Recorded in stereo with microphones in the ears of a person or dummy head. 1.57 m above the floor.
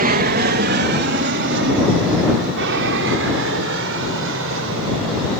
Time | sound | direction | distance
0.0 | an aircraft | 45° right (ahead or behind) | ?